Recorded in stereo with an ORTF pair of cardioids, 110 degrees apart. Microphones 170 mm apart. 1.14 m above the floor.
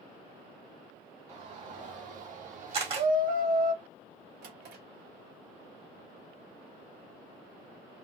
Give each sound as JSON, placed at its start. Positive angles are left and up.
{"t": 1.3, "sound": "a shout", "azimuth_deg": -45, "distance_m": 2.5}
{"t": 2.7, "sound": "a camera shutter", "azimuth_deg": -35, "distance_m": 1.7}
{"t": 4.4, "sound": "a drawer", "azimuth_deg": -65, "distance_m": 1.6}